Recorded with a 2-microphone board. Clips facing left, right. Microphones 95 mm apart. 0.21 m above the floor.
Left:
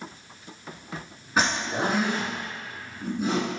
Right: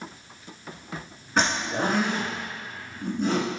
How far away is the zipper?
About 1.4 m.